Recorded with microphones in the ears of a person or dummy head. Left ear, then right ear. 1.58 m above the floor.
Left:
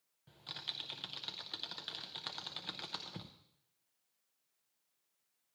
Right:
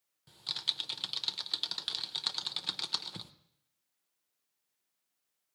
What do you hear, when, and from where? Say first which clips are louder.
0.3 s typing on a keyboard: right 9 dB; 15° right (ahead or behind), 0.6 m